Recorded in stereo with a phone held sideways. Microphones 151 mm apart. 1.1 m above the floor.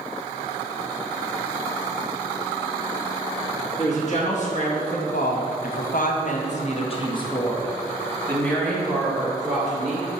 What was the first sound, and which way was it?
A woman speaking, 50° left (ahead or behind).